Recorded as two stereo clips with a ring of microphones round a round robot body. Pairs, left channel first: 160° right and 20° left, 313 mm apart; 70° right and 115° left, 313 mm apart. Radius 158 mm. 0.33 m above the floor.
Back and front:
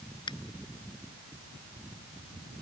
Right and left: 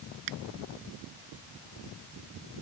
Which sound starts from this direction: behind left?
A finger snap, at 0.3 s.